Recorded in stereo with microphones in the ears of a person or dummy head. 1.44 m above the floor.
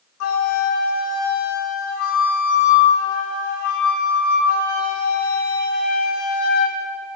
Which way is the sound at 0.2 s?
60° left (ahead or behind).